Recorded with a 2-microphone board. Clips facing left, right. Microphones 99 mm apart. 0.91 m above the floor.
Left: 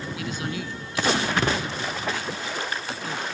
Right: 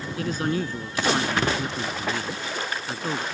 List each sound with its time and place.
0.2 s a man speaking: 40° right (ahead or behind)